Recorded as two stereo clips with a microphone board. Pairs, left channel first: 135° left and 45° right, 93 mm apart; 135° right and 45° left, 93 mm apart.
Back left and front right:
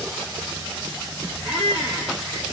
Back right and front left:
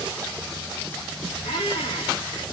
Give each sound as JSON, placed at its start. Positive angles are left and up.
{"t": 1.4, "sound": "a squeak", "azimuth_deg": -135, "distance_m": 3.0}